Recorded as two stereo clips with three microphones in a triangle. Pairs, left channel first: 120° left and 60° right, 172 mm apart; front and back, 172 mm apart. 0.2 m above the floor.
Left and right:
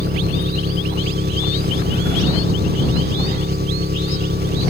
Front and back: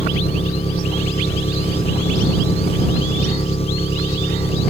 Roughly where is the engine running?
Ahead right.